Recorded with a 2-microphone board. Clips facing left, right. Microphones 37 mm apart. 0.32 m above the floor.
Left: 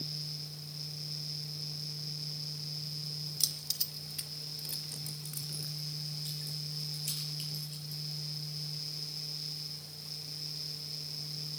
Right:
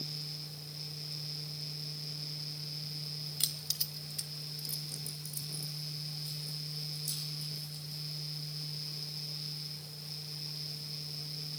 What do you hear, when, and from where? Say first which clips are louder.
3.4 s keys jangling: even; 40° right (ahead or behind), 1.0 m; by 8.0 s 70° left (ahead or behind), 5.5 m